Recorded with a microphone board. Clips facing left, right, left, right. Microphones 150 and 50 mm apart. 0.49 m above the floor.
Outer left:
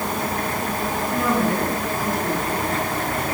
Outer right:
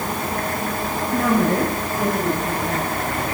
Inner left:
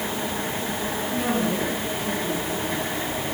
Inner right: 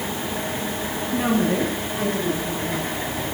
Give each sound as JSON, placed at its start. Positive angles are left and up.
{"t": 1.1, "sound": "a woman speaking", "side_deg": -40, "distance_m": 5.5}